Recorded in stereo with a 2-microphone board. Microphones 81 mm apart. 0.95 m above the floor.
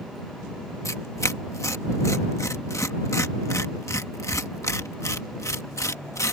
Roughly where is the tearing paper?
Left.